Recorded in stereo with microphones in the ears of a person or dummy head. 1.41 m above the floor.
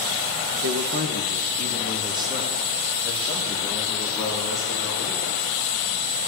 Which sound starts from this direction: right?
A man speaking, at 0.6 s.